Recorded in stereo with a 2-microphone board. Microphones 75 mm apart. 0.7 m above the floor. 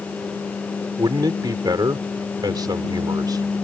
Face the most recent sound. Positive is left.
turn(degrees=-65)  # may be behind; listen again after turning